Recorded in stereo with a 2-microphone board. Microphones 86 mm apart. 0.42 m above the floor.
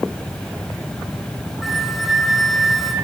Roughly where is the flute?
Centre.